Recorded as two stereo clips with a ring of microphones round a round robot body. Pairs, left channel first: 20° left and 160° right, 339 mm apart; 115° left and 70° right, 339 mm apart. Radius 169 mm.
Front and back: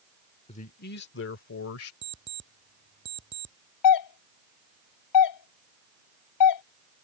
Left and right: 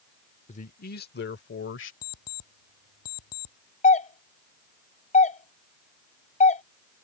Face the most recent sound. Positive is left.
turn(degrees=45)